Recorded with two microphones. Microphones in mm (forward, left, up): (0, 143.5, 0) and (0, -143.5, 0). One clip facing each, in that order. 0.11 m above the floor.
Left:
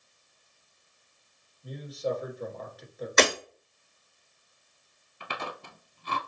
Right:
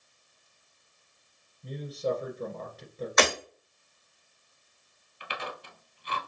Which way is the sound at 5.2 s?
55° left (ahead or behind).